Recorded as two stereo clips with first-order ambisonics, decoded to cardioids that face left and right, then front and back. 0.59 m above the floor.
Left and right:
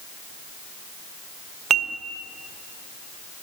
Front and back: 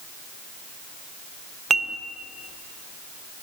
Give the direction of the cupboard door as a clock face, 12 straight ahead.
I don't hear a cupboard door.